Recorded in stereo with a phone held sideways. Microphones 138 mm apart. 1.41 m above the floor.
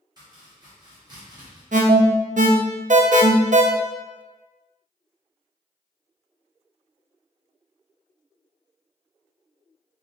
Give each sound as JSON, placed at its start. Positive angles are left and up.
{"t": 0.2, "sound": "chopping", "side_deg": -30, "distance_m": 1.5}
{"t": 1.7, "sound": "an alarm", "side_deg": -65, "distance_m": 0.6}